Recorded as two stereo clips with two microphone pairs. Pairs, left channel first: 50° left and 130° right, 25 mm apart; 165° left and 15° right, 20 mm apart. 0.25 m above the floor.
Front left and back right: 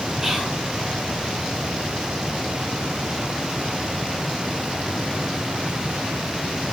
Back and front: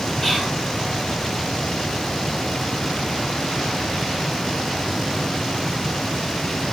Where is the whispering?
Straight behind, 1.4 m.